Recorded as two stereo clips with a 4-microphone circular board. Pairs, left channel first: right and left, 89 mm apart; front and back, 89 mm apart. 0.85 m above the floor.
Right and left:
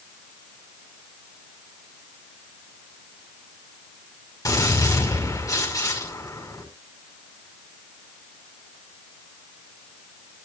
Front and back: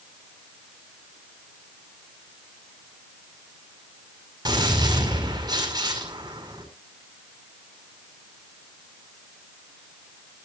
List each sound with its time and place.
4.5 s a gunshot: 140° right, 5.5 m